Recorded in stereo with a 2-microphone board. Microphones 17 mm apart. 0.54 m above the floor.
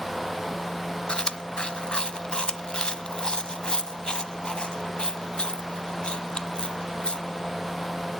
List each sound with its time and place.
1.1 s chewing: 60° left (ahead or behind), 1.0 m